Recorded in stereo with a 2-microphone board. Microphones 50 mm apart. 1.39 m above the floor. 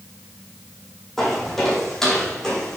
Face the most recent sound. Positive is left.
turn(degrees=15)  # may be behind; listen again after turning